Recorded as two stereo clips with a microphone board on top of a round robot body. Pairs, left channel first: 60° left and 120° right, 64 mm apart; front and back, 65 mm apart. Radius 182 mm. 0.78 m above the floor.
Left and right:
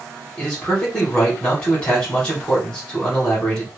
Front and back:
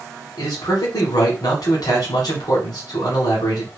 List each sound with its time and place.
0.4 s a man speaking: 10° right, 3.5 m